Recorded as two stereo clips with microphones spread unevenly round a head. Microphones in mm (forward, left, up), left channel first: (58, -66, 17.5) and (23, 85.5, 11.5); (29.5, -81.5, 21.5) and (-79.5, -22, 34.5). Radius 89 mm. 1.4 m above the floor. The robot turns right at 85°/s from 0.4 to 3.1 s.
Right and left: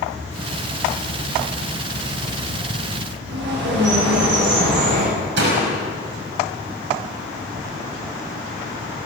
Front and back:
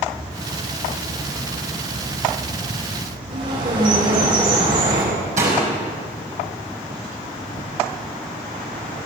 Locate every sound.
3.3 s a bird: 115° left, 9 m
5.4 s a door slam: 105° left, 6 m